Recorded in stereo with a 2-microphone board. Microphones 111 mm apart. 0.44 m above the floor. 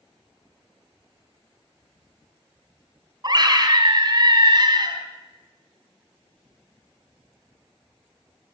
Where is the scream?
40° right (ahead or behind), 3 m.